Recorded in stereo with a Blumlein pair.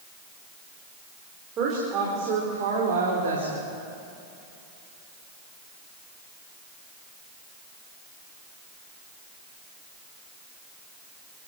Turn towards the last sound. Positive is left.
turn(degrees=-70)